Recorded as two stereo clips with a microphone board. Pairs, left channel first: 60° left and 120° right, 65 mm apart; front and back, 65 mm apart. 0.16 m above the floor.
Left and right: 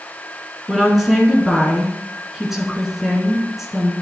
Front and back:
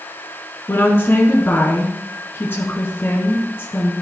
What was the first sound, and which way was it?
A woman speaking, 40° right.